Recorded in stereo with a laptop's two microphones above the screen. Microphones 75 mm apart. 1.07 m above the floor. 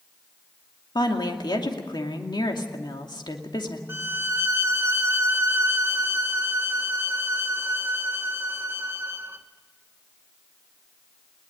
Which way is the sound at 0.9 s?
75° left (ahead or behind).